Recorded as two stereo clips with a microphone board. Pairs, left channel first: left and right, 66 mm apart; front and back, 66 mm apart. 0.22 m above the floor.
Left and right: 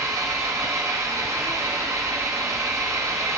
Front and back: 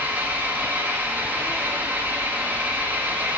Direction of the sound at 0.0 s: 125° right.